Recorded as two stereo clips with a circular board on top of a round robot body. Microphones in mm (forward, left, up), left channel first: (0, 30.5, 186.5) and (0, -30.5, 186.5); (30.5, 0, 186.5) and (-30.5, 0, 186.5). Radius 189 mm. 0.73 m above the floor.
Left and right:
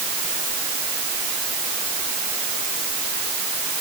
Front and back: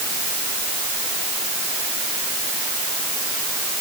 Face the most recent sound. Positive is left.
No sound to turn to.